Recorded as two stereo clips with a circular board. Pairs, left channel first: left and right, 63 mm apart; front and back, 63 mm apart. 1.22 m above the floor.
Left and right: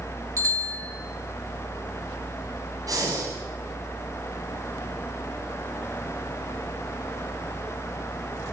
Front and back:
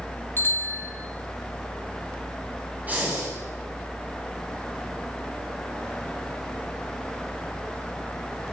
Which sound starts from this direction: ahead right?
A bicycle bell, at 0.4 s.